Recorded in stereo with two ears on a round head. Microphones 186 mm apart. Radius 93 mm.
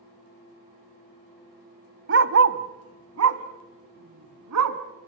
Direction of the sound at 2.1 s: 55° right (ahead or behind).